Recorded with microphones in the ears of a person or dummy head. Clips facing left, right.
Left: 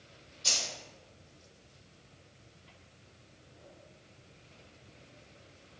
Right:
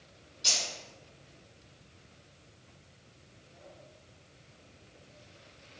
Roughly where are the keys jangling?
Right.